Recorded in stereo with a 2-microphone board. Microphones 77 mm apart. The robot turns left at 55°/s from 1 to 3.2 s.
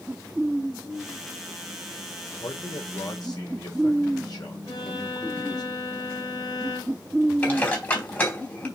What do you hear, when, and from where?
2.4 s a man speaking: 100° left, 3.5 m; by 5.7 s 55° left, 3.5 m
4.7 s a violin: 60° left (ahead or behind), 3 m
7.4 s dishes clattering: 25° left (ahead or behind), 2.5 m